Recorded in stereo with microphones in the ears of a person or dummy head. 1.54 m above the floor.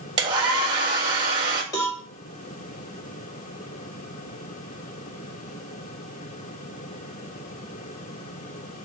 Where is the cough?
No cough in this recording.